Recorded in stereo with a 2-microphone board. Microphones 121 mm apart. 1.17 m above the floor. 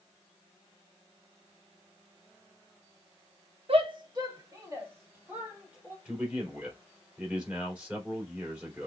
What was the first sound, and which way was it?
A shout, 55° right (ahead or behind).